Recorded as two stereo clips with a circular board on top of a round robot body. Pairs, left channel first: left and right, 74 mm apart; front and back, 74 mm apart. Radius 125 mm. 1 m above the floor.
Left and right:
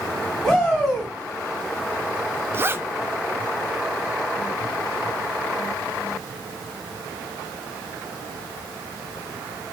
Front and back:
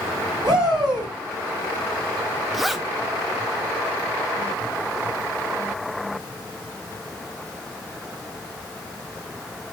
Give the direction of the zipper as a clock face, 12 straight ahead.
3 o'clock.